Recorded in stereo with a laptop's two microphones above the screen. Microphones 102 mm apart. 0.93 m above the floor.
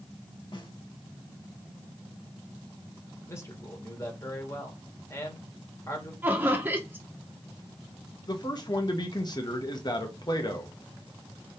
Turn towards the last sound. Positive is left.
turn(degrees=45)  # may be behind; listen again after turning